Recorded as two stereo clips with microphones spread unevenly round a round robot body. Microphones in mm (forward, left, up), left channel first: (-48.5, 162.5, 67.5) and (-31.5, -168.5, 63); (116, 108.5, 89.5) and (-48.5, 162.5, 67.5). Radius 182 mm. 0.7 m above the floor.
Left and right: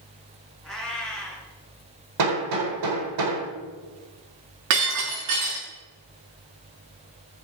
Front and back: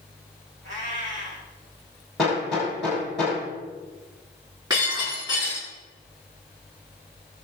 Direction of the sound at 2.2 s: 110° right.